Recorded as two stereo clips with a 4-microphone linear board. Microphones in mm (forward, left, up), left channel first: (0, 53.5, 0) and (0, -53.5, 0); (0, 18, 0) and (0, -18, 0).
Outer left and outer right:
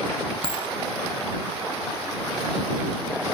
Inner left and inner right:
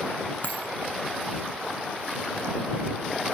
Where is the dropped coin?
60° left (ahead or behind).